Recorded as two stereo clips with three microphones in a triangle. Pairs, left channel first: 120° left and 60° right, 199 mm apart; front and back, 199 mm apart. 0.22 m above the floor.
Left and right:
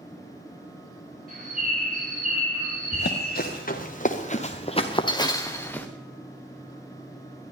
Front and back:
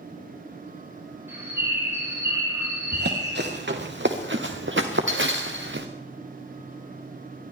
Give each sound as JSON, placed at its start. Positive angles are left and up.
{"t": 1.3, "sound": "a bird", "azimuth_deg": -105, "distance_m": 5.5}
{"t": 2.9, "sound": "running footsteps", "azimuth_deg": 150, "distance_m": 2.5}